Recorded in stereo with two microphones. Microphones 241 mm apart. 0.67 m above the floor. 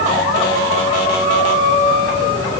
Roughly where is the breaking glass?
I don't hear breaking glass.